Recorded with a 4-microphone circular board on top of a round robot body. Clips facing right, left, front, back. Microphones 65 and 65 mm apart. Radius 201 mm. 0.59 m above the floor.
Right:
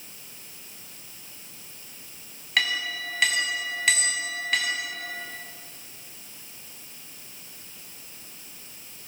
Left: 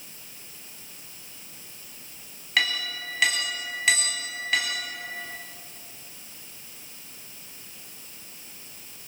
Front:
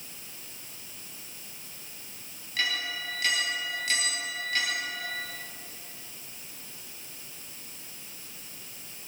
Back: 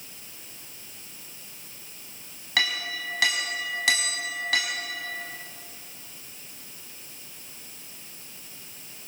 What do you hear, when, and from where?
2.6 s a clink: straight behind, 4.5 m